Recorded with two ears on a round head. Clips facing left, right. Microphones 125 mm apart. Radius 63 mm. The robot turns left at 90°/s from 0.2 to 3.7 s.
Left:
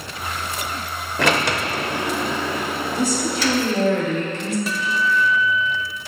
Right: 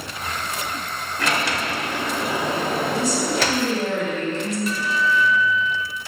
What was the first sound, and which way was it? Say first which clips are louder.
A sliding door: left 4 dB; 90° left.